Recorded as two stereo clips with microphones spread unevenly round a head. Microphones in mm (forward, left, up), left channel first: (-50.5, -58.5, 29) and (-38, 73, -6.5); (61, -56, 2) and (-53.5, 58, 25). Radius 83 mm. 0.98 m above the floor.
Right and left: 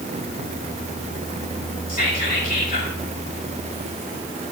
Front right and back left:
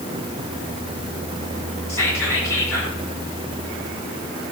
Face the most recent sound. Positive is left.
turn(degrees=-120)